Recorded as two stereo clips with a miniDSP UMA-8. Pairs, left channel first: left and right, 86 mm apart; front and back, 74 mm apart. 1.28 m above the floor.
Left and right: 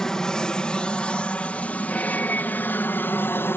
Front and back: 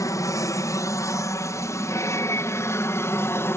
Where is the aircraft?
10° left; by 3.6 s 40° left.